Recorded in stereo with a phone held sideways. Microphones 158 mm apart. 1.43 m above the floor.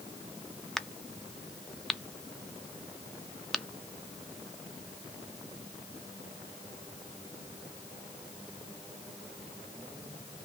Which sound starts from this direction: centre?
A crack, at 0.8 s.